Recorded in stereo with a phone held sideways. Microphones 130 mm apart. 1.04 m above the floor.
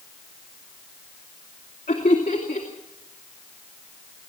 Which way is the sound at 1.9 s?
60° left (ahead or behind).